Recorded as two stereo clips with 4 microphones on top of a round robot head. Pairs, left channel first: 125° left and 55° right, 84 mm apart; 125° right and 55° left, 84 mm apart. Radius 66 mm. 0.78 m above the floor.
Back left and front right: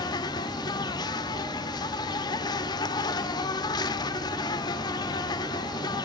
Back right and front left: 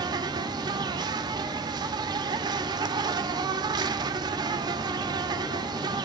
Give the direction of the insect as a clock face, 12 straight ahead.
9 o'clock.